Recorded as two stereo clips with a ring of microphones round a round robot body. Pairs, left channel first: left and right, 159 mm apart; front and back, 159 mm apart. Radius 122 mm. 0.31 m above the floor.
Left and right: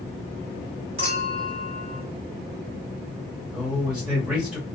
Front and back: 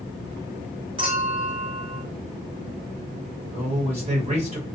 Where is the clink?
130° right, 1.3 m.